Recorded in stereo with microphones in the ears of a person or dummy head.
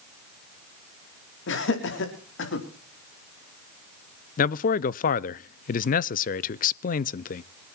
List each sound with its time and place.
1.5 s laughter: 65° left (ahead or behind), 4 m
4.4 s a man speaking: 40° left (ahead or behind), 0.5 m